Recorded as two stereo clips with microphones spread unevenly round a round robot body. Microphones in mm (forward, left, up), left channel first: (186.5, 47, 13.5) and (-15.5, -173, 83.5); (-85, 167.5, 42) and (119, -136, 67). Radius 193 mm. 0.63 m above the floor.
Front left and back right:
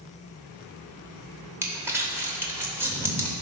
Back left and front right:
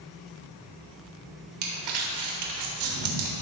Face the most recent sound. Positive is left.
turn(degrees=-45)